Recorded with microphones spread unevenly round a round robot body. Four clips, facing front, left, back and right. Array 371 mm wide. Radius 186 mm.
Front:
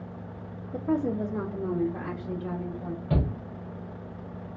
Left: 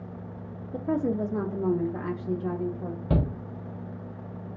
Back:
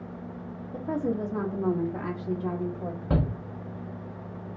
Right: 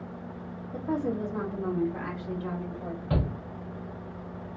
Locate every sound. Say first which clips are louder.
0.7 s a woman speaking: left 3 dB, front 2 dB; 60° left, 0.7 m; by 3.0 s 145° left, 1.4 m
3.1 s a shout: left 3 dB, back 1 dB; 120° left, 0.7 m